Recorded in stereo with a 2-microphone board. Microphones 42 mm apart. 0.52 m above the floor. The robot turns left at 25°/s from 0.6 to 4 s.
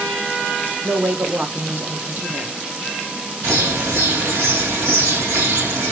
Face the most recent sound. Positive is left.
turn(degrees=-80)